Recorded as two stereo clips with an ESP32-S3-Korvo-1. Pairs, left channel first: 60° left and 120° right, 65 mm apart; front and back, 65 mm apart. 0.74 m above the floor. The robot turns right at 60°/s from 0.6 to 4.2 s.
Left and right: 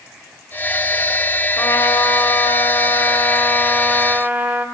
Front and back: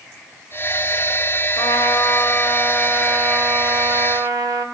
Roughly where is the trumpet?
Ahead.